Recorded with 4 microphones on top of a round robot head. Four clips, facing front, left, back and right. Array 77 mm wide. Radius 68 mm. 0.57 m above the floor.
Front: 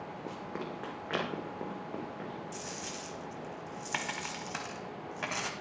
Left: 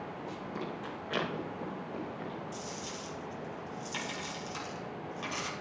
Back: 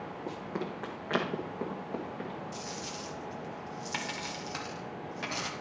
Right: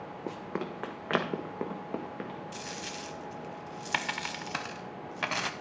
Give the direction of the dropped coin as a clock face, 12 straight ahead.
3 o'clock.